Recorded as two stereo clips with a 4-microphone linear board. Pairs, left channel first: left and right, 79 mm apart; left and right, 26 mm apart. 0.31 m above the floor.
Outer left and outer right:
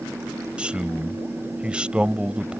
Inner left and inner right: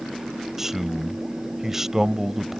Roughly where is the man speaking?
Centre.